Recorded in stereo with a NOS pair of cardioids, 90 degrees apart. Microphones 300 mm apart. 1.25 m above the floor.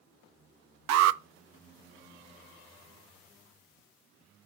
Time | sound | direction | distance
0.9 | an alarm | 65° right | 0.6 m